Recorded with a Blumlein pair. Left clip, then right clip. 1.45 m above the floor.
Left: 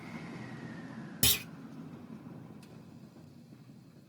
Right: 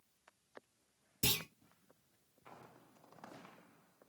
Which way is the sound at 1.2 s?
45° left.